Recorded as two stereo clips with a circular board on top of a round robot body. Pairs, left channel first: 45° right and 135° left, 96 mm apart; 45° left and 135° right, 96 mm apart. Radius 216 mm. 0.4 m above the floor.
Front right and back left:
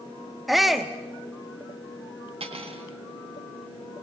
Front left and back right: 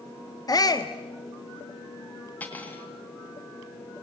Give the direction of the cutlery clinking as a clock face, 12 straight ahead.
8 o'clock.